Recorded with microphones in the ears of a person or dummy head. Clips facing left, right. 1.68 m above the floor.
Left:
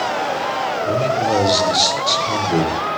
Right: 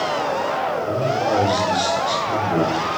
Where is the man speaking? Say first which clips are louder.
Left 4 dB; 30° left (ahead or behind), 1.6 m.